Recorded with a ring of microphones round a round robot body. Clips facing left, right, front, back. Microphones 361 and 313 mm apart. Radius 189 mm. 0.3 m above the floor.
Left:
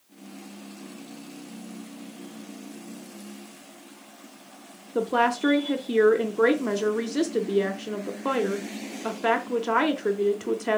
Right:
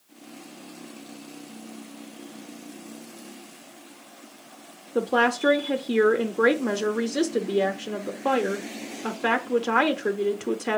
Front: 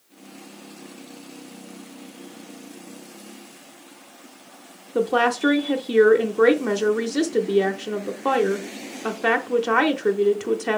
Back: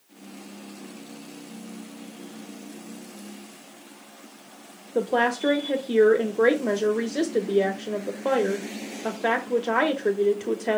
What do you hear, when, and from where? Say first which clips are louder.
5.0 s a woman speaking: right 1 dB, front 3 dB; 10° right, 0.8 m